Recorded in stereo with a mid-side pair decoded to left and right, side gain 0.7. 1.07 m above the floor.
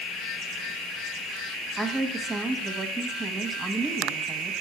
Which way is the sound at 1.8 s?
10° right.